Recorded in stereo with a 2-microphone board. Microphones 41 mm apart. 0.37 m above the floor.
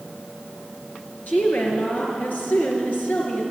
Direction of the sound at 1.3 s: 55° left (ahead or behind).